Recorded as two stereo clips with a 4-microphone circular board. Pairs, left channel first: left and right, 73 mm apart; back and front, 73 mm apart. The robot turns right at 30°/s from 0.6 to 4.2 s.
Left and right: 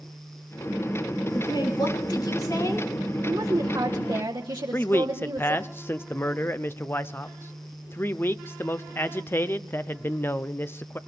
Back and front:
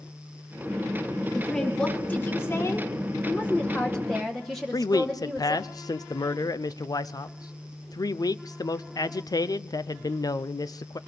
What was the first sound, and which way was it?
A woman speaking, 90° left.